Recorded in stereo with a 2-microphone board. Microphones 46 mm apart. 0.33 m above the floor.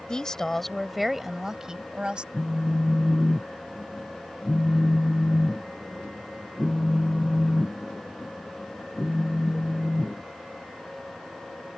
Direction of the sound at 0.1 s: 20° left (ahead or behind).